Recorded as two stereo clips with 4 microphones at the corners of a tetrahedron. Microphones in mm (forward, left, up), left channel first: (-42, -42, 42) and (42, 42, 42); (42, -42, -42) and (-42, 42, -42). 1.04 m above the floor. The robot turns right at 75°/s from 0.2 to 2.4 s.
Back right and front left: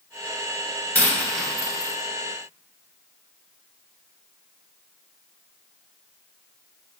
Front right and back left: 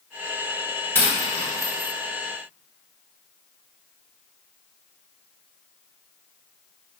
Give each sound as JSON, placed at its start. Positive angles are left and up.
{"t": 0.9, "sound": "a dropped coin", "azimuth_deg": -90, "distance_m": 0.9}